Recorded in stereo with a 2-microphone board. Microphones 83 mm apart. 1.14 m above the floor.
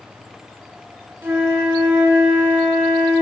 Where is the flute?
30° right (ahead or behind), 0.8 m.